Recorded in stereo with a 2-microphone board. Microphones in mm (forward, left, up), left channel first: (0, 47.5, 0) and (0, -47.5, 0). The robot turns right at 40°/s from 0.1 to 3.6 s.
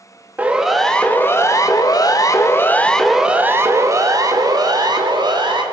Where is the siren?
15° right (ahead or behind), 2.5 m; by 5.6 s 50° right (ahead or behind), 3.5 m.